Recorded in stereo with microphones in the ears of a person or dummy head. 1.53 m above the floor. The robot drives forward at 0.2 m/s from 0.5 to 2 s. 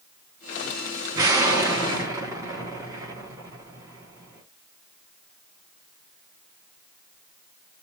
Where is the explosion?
20° right (ahead or behind), 0.9 m; by 4.4 s 15° right (ahead or behind), 1.1 m.